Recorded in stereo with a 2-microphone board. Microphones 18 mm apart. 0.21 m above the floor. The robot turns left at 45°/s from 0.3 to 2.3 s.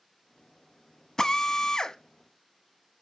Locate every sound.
1.2 s a drill: 140° left, 0.8 m; by 2.0 s 105° left, 0.8 m